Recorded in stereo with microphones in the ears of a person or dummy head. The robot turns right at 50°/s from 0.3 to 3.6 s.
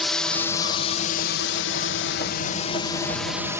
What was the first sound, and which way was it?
A drone, 10° left (ahead or behind).